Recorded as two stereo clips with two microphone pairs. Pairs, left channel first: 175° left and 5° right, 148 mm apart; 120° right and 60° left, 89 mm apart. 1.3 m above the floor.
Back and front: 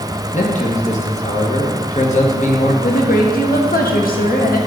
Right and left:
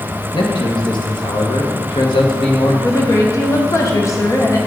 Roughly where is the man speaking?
Behind right.